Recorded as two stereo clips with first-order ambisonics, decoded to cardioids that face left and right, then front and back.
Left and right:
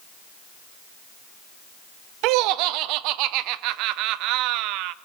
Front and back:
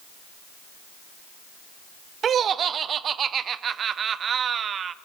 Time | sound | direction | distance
2.2 | laughter | 115° right | 0.6 m